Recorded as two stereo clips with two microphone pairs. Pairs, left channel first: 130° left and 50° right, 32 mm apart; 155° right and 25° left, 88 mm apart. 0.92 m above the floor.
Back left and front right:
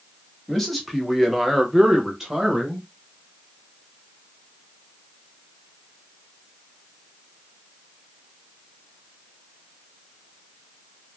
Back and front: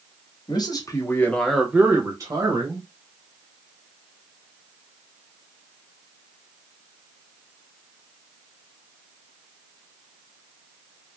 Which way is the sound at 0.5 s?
145° right.